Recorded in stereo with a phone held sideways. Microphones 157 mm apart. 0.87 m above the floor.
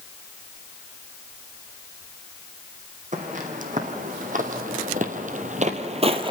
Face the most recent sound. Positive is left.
turn(degrees=-30)  # may be behind; listen again after turning